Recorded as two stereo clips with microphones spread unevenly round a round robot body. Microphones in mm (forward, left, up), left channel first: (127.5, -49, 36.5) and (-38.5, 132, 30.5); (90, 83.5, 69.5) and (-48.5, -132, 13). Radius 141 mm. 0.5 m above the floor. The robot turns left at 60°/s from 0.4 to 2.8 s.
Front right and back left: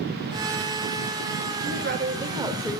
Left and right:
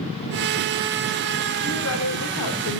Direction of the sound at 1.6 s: 110° left.